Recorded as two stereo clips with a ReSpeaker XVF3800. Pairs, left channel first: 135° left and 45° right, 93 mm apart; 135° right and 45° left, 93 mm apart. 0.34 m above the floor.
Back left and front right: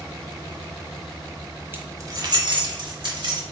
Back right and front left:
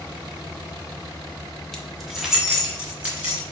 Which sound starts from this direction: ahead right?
Keys jangling, at 1.7 s.